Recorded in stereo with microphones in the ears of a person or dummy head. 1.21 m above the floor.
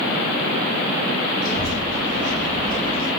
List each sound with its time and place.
1.4 s a child speaking: 20° left (ahead or behind), 1.2 m